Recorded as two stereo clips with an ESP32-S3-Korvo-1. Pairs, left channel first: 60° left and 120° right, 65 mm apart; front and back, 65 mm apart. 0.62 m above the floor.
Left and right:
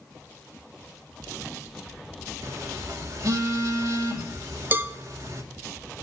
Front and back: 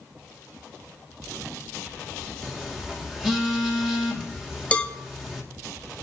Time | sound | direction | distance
2.4 | a phone buzzing | 100° right | 2 m
4.7 | a cowbell | 70° right | 0.7 m